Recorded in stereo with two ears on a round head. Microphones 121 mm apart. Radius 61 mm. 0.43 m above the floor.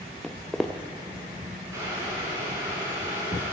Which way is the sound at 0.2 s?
Centre (ahead or behind).